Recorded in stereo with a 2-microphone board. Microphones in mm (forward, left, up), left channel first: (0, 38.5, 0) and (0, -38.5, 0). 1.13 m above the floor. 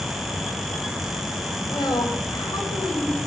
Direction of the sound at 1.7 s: 65° left (ahead or behind).